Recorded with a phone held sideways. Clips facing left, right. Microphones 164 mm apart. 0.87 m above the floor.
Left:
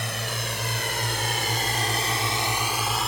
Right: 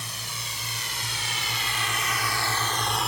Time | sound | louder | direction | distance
0.0 | a drone | left 9 dB | 80° left | ?